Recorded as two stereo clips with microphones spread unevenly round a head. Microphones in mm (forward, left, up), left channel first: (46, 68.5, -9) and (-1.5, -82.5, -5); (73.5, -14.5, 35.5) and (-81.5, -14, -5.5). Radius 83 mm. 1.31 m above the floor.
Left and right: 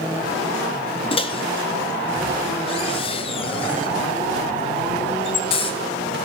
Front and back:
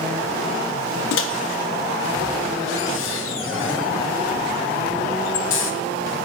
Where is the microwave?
15° left, 0.6 m.